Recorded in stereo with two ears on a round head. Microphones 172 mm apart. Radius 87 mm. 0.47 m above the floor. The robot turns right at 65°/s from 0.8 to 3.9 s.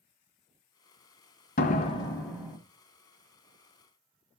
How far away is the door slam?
About 1.8 m.